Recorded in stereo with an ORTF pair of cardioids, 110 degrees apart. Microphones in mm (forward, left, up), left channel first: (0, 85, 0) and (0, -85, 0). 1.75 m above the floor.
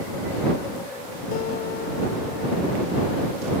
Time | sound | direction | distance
1.3 | a guitar | 65° left | ?